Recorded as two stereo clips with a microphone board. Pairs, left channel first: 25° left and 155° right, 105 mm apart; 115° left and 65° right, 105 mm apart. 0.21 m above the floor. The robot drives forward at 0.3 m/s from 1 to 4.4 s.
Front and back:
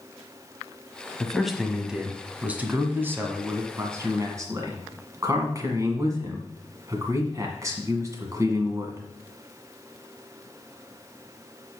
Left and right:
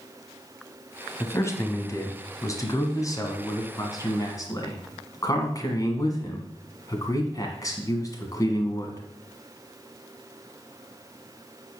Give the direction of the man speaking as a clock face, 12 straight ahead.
8 o'clock.